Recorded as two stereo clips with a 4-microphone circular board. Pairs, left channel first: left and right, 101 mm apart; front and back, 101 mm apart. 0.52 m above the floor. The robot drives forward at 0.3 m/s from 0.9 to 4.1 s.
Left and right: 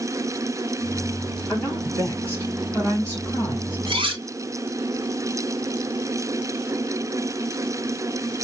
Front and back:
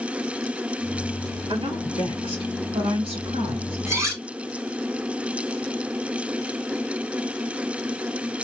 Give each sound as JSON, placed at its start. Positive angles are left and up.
{"t": 1.5, "sound": "a woman speaking", "azimuth_deg": 165, "distance_m": 4.0}
{"t": 3.9, "sound": "cutlery clinking", "azimuth_deg": -115, "distance_m": 1.3}